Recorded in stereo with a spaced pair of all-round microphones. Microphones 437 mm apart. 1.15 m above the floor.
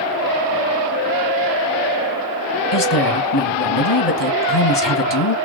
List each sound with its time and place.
2.7 s a woman speaking: 70° left (ahead or behind), 1.5 m